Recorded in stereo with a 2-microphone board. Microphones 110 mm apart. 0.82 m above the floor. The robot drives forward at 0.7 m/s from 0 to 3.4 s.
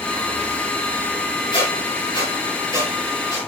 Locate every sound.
1.5 s a squeak: 45° left (ahead or behind), 5 m; by 3.5 s 35° left (ahead or behind), 6 m